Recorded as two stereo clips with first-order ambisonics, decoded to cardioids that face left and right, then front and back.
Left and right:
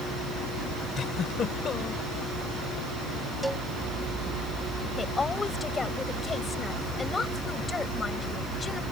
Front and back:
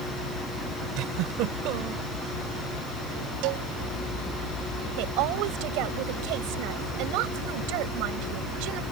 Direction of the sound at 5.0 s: 165° left.